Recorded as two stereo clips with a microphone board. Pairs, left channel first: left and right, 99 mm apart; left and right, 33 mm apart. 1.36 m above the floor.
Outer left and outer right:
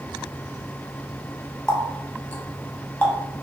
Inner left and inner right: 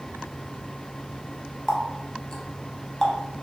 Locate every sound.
1.7 s a running tap: 15° left (ahead or behind), 0.7 m